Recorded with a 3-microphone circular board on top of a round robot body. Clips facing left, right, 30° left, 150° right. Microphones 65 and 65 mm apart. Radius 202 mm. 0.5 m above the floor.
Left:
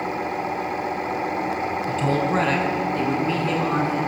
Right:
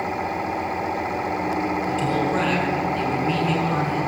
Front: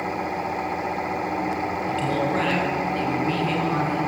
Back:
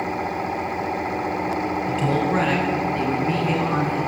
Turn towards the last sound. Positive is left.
turn(degrees=140)